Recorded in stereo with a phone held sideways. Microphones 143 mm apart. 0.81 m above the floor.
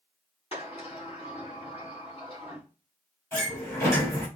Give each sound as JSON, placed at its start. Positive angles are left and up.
{"t": 0.5, "sound": "a sliding door", "side_deg": 40, "distance_m": 3.5}
{"t": 3.3, "sound": "a sliding door", "side_deg": 20, "distance_m": 2.5}